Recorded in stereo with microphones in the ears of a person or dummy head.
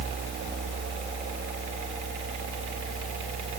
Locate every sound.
Only background noise.